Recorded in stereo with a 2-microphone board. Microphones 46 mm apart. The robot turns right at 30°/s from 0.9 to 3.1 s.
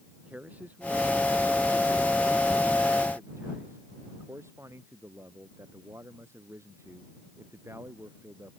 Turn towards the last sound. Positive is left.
turn(degrees=-80)